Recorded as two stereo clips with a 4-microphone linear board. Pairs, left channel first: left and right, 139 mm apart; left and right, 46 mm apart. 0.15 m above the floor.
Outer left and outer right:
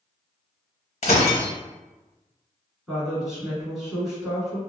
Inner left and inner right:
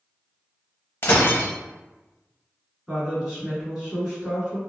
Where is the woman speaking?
5° right (ahead or behind), 1.7 m.